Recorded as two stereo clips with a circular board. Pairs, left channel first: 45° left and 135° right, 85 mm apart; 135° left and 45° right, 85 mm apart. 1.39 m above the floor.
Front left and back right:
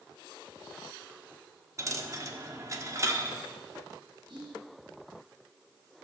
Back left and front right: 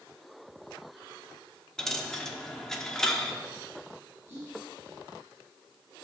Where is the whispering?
105° right, 5 m.